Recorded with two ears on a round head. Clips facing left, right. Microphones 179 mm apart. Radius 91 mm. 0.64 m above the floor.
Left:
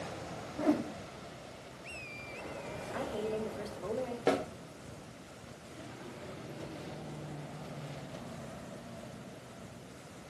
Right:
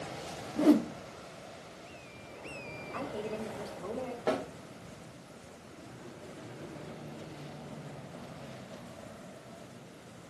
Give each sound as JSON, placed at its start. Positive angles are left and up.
{"t": 0.6, "sound": "a whoosh", "side_deg": -45, "distance_m": 0.5}
{"t": 2.9, "sound": "a woman speaking", "side_deg": 15, "distance_m": 2.5}
{"t": 4.3, "sound": "a snare drum", "side_deg": 35, "distance_m": 1.8}